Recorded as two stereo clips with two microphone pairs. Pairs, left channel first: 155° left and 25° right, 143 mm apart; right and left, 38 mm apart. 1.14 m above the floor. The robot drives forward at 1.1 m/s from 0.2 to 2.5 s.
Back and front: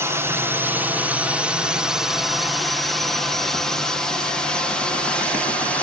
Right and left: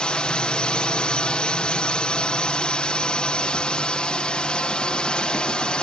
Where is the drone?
70° right; by 5.8 s 130° right.